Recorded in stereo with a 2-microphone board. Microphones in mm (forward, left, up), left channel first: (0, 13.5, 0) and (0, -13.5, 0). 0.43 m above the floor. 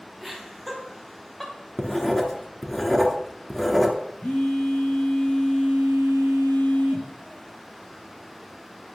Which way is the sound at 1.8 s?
10° left (ahead or behind).